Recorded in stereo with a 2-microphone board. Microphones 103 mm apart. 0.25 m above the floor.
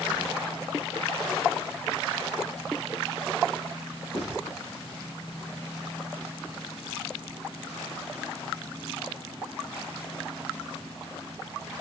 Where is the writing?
70° left (ahead or behind), 3.5 m.